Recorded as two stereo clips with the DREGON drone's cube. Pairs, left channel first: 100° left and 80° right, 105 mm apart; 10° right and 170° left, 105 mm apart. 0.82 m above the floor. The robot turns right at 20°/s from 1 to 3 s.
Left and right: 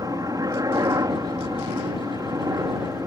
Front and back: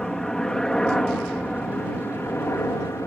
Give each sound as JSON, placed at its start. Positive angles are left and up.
{"t": 0.0, "sound": "a helicopter", "azimuth_deg": -90}